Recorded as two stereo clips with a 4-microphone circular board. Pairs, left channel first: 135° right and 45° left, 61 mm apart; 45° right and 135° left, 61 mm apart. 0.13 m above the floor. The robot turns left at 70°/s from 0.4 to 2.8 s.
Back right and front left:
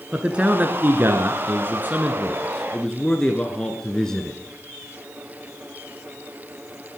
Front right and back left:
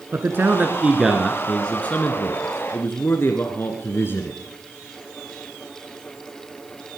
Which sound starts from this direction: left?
A man speaking, at 0.1 s.